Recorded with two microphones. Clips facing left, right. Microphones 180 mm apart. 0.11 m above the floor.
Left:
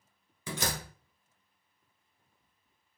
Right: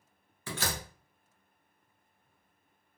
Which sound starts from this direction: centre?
A door slam, at 0.5 s.